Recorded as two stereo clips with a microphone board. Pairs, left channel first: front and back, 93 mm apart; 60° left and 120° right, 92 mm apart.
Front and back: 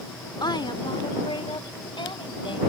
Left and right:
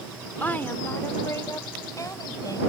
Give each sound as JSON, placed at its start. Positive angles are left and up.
{"t": 0.4, "sound": "a woman speaking", "azimuth_deg": -10}